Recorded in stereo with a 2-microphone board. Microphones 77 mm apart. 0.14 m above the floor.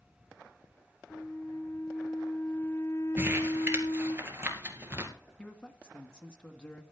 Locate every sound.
1.1 s a flute: 30° left (ahead or behind), 1.1 m
3.2 s crumpling: 30° right (ahead or behind), 2 m
5.4 s a man speaking: 15° left (ahead or behind), 1.1 m